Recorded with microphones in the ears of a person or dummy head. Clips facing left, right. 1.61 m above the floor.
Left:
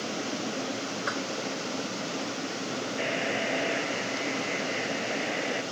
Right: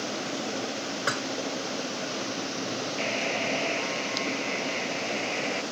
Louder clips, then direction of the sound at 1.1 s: Right 2 dB; 45° right (ahead or behind).